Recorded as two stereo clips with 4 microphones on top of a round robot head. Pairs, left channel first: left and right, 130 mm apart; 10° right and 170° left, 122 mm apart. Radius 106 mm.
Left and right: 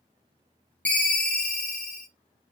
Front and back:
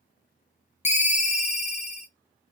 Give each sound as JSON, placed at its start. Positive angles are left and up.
{"t": 0.8, "sound": "a ringtone", "azimuth_deg": 10, "distance_m": 0.5}